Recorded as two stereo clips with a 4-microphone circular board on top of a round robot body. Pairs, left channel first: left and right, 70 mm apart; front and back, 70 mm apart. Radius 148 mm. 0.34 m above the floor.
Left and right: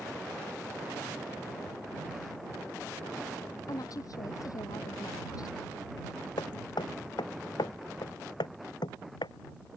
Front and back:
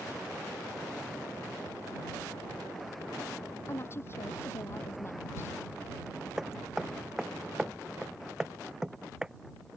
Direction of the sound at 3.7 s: 55° left.